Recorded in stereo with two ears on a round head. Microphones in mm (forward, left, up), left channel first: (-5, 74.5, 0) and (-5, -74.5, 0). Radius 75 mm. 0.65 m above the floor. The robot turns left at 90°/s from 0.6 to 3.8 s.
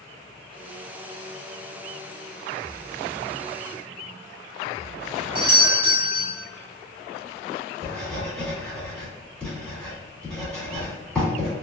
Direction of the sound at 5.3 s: 30° right (ahead or behind).